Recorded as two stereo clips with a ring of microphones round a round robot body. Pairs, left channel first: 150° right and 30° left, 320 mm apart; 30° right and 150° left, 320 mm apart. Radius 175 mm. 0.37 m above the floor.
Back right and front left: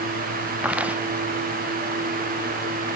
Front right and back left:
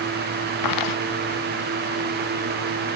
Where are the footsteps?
55° right.